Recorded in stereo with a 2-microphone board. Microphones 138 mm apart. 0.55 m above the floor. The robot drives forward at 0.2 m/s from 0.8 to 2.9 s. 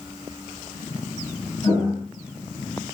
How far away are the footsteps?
About 1.7 m.